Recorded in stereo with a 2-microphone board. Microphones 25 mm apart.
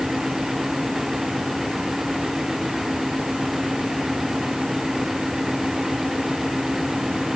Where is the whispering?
I don't hear whispering.